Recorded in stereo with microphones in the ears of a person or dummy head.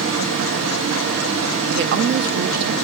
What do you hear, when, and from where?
0.0 s running water: 65° right (ahead or behind), 1.3 m
1.7 s a woman speaking: 50° right (ahead or behind), 0.6 m